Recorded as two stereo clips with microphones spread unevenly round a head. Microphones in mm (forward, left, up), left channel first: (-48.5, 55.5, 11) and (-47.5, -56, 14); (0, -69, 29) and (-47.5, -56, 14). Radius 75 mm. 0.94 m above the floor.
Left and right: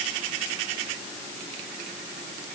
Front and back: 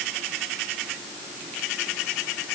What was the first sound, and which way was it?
Only background noise.